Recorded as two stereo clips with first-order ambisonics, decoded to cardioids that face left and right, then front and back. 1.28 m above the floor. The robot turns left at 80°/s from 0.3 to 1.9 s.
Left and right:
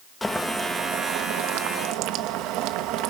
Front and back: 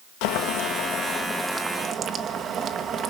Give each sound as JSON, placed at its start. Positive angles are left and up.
{"t": 0.2, "sound": "boiling", "azimuth_deg": 10, "distance_m": 1.3}